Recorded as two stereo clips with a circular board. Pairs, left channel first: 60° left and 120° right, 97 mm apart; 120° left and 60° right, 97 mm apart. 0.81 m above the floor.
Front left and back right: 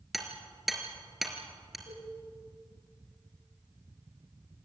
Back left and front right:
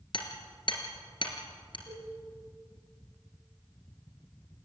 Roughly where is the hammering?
Behind left.